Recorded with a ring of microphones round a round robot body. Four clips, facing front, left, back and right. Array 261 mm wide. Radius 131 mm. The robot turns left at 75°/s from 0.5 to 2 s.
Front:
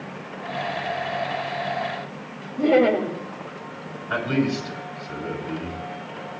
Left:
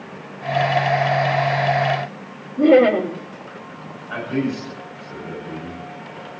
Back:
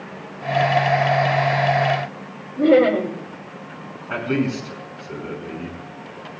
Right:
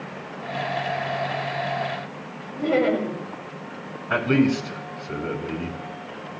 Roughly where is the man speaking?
Right.